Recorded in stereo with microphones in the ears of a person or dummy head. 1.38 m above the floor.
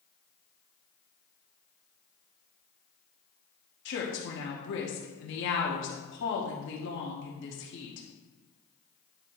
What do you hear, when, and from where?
3.9 s a woman speaking: 65° left (ahead or behind), 1.4 m